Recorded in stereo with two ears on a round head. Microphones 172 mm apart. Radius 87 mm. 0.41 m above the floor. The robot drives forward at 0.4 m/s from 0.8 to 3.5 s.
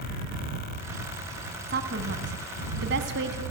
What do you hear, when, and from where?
1.7 s a woman speaking: 50° right (ahead or behind), 3 m; by 3.4 s 60° right (ahead or behind), 3 m